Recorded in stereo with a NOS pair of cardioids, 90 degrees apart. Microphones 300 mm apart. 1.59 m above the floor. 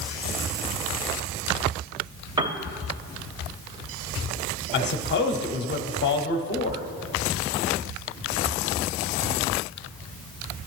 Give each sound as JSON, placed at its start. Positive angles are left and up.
{"t": 2.4, "sound": "a piano", "azimuth_deg": -15, "distance_m": 0.5}
{"t": 4.7, "sound": "a man speaking", "azimuth_deg": 35, "distance_m": 0.7}